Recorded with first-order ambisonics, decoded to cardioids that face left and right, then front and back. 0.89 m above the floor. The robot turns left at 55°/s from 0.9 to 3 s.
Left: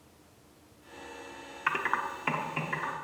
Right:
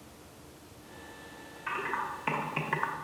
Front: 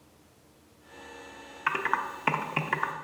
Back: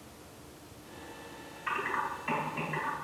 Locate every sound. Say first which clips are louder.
1.7 s typing on a keyboard: left 4 dB, front 4 dB; 40° left, 0.5 m; by 2.9 s 30° right, 0.5 m